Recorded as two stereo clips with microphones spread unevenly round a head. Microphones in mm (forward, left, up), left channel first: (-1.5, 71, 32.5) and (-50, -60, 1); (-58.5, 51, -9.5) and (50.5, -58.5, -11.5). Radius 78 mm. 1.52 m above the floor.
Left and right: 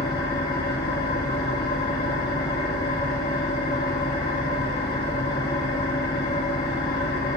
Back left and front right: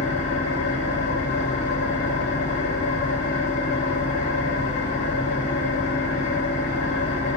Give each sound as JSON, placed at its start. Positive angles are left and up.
{"t": 0.0, "sound": "an engine running", "azimuth_deg": 90, "distance_m": 3.0}